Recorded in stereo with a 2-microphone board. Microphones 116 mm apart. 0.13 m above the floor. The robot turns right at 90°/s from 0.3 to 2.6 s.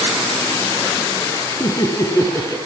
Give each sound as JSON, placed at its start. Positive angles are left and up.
{"t": 1.6, "sound": "laughter", "azimuth_deg": 90, "distance_m": 1.4}